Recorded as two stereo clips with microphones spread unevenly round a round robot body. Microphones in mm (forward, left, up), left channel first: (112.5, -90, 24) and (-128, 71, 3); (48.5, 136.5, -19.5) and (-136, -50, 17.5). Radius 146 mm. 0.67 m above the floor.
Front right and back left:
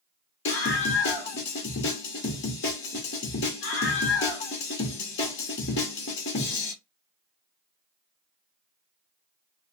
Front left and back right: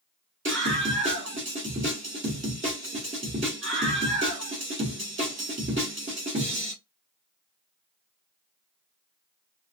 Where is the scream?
70° right, 0.9 m.